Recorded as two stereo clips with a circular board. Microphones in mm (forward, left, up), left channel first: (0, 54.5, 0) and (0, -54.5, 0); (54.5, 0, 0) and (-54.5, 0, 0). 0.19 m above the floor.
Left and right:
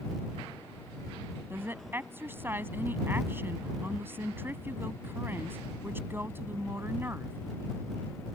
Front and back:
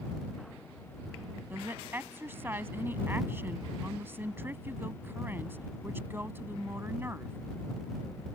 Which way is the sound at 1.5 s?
135° right.